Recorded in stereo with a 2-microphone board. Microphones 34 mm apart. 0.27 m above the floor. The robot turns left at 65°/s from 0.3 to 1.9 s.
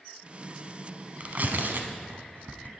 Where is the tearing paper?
45° right (ahead or behind), 0.9 m; by 2.7 s 65° right (ahead or behind), 0.9 m.